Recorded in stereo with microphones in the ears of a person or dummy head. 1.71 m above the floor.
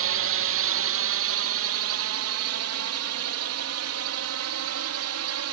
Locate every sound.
0.0 s a drone: 60° right (ahead or behind); by 5.5 s 70° right (ahead or behind)